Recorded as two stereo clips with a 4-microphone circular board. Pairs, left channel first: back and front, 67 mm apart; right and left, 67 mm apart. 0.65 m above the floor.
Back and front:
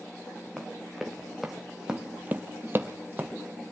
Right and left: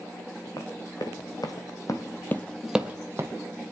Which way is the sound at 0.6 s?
95° right.